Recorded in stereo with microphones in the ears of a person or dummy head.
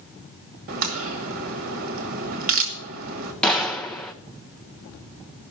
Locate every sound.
0.7 s a crack: 45° right (ahead or behind), 1.4 m
3.4 s a gunshot: 5° left (ahead or behind), 0.6 m